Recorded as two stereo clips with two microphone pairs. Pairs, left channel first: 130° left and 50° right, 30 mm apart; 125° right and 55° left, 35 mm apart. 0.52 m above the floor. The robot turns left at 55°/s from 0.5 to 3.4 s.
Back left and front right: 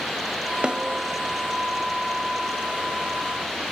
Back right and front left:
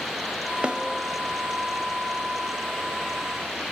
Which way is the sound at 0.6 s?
5° left.